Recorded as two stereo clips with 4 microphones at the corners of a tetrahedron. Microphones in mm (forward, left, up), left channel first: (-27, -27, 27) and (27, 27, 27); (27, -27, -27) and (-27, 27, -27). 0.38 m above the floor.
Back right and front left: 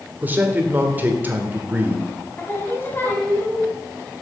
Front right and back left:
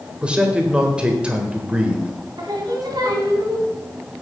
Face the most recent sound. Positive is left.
turn(degrees=165)